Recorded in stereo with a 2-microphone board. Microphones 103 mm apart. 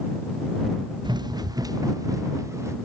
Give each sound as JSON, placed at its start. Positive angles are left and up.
{"t": 1.0, "sound": "running footsteps", "side_deg": -45}